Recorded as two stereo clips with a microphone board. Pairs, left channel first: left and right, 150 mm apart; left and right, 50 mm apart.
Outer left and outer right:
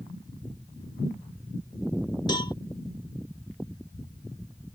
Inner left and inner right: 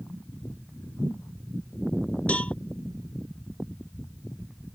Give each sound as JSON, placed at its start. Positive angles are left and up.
{"t": 2.3, "sound": "a cowbell", "side_deg": 30}